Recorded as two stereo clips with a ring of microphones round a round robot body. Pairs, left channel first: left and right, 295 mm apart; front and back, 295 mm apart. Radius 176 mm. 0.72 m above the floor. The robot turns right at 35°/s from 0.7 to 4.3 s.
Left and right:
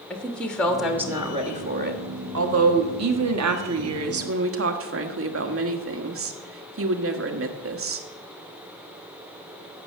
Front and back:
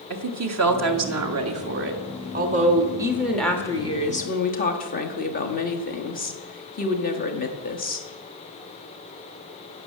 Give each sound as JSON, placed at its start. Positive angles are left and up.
{"t": 0.1, "sound": "a woman speaking", "azimuth_deg": 175, "distance_m": 1.6}